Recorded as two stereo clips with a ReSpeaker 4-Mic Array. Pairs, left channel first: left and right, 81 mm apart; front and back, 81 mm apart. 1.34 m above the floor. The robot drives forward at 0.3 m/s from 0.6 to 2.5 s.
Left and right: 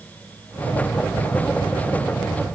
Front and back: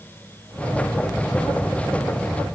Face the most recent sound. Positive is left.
No sound to turn to.